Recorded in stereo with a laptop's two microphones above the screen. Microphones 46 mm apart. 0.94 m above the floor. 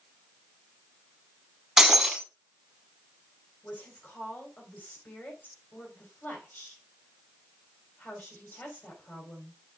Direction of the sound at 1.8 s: 10° right (ahead or behind).